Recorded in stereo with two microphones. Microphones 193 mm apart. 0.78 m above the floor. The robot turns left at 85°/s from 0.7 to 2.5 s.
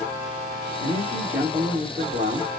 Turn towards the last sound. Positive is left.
turn(degrees=-110)